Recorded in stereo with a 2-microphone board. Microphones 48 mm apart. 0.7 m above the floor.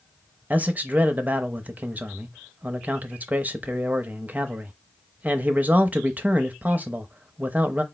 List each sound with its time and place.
0.5 s a man speaking: 30° right (ahead or behind), 0.6 m